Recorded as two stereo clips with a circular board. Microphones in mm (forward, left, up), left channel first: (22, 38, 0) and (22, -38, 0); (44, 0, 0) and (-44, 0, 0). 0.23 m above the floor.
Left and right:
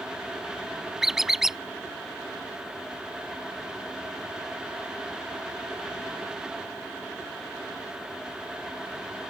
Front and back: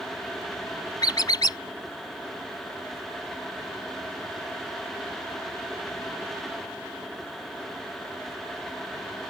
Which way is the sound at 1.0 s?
10° right.